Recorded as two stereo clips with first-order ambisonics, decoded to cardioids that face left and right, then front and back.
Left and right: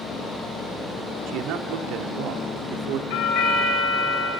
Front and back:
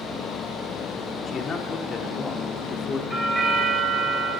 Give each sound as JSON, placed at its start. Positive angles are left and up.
{"t": 1.3, "sound": "a man speaking", "azimuth_deg": -60, "distance_m": 1.8}
{"t": 3.1, "sound": "a doorbell", "azimuth_deg": 95, "distance_m": 4.5}